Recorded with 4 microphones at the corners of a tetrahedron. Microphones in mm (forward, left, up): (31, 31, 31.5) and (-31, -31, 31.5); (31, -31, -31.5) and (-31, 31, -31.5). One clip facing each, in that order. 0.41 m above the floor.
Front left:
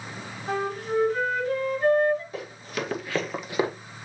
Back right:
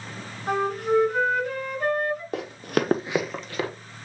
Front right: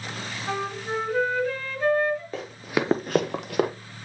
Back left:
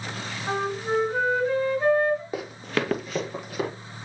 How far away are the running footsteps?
About 1.1 m.